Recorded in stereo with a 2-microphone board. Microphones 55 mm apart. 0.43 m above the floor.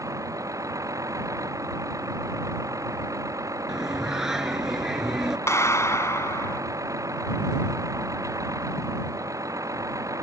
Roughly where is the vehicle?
Right.